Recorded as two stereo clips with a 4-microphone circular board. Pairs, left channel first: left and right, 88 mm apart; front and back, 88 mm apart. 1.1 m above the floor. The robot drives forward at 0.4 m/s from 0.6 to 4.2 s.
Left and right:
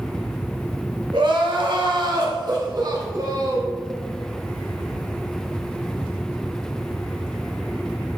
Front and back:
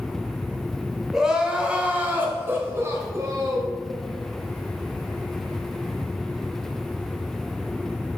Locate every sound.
1.1 s crying: 95° right, 1.3 m; by 3.8 s 135° right, 1.8 m